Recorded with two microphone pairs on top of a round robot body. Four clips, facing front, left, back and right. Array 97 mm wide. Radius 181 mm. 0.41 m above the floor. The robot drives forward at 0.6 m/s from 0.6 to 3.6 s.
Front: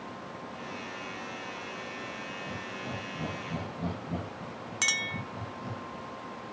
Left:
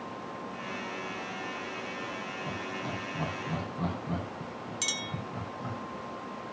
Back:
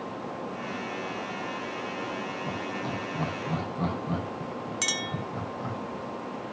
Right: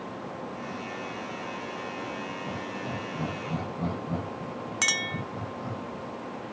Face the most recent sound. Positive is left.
turn(degrees=-80)